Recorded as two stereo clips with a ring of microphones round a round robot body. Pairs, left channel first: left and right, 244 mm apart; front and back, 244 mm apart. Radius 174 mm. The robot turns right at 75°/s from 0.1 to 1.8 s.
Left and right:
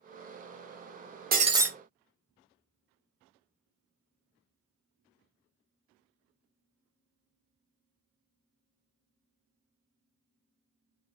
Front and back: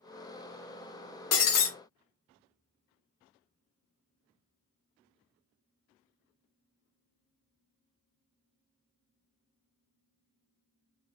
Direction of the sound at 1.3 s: 30° right.